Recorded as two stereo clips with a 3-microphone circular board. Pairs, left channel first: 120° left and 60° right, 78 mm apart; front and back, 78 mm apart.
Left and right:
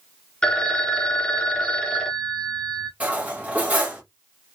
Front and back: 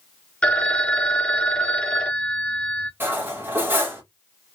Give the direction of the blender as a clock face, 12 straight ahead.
No blender in this recording.